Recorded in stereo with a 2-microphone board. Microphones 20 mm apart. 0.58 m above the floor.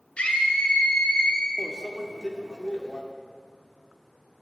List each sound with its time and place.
0.2 s a scream: 70° left (ahead or behind), 2.5 m; by 1.5 s 60° left (ahead or behind), 3 m
1.6 s a microwave: 35° left (ahead or behind), 1.1 m